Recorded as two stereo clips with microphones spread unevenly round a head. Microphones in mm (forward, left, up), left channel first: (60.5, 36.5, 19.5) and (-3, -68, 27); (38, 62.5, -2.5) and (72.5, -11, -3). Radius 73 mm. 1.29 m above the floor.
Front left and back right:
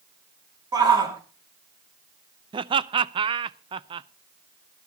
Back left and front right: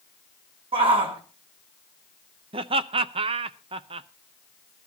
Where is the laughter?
75° right, 0.6 m.